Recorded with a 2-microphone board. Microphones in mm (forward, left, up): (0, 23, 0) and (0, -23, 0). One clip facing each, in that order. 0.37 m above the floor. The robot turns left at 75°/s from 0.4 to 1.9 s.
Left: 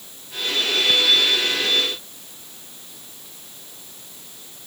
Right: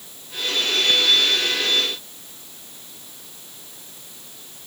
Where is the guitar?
No guitar in this recording.